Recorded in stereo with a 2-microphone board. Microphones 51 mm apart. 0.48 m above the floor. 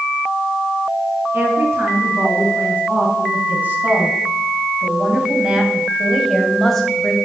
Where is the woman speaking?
45° right (ahead or behind), 6 m; by 7.2 s 15° left (ahead or behind), 2.5 m.